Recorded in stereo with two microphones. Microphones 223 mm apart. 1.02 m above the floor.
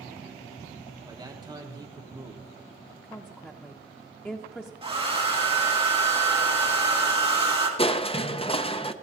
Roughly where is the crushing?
Left.